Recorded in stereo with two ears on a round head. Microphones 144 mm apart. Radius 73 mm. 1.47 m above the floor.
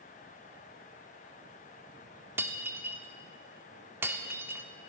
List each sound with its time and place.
2.4 s breaking glass: 15° right (ahead or behind), 1.5 m